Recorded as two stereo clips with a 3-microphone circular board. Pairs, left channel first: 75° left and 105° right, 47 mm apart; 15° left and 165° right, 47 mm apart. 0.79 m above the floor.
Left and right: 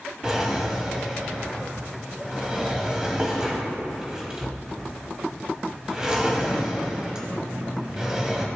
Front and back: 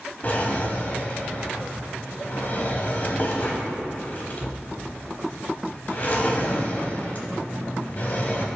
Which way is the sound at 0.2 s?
30° right.